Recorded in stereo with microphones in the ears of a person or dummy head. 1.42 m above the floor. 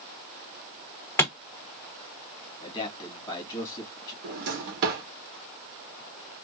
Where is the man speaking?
20° left (ahead or behind), 1.8 m.